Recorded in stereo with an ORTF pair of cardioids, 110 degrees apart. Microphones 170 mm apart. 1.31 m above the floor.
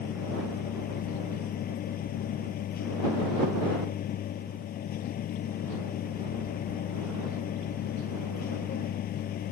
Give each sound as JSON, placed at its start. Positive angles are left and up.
{"t": 0.0, "sound": "a machine running", "azimuth_deg": 60}